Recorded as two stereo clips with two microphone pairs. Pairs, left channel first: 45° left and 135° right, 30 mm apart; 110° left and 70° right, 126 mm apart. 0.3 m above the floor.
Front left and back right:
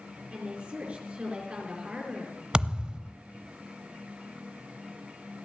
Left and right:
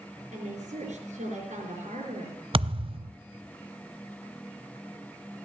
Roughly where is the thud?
Right.